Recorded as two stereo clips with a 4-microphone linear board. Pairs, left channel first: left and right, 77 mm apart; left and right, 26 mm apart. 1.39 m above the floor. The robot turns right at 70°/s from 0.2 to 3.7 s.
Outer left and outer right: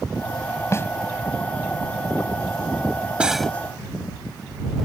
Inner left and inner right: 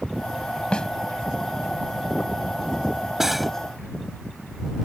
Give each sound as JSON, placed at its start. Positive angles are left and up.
{"t": 0.7, "sound": "a snare drum", "side_deg": 40}
{"t": 3.2, "sound": "cutlery clinking", "side_deg": -15}